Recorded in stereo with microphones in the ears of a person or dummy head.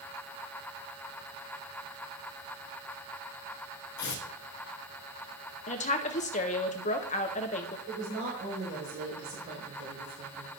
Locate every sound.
4.0 s tearing paper: 60° left (ahead or behind), 1.2 m
5.7 s a woman speaking: 30° left (ahead or behind), 0.7 m
7.9 s a woman speaking: 55° right (ahead or behind), 4.5 m